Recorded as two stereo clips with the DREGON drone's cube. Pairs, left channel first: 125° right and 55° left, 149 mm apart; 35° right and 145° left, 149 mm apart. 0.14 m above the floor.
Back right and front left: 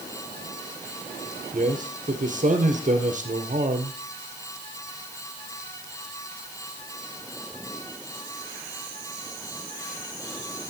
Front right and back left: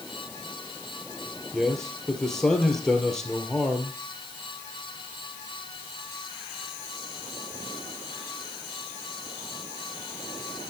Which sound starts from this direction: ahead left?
A man speaking, at 1.5 s.